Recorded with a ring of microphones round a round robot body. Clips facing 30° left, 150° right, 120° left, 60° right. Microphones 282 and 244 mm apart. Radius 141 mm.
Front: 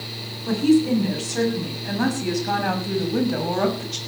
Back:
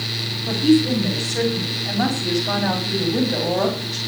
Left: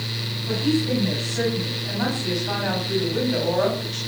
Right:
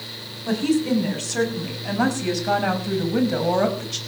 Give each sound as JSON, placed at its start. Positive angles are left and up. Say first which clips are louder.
{"t": 0.5, "sound": "a woman speaking", "louder": "back 1 dB, right 2 dB", "azimuth_deg": -50, "distance_m": 6.5}